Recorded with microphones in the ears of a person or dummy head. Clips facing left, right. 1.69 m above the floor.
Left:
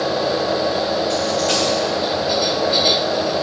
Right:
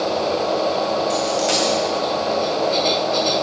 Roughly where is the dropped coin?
Right.